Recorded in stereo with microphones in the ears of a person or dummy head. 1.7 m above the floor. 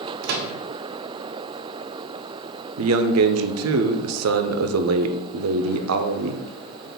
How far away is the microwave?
About 0.5 m.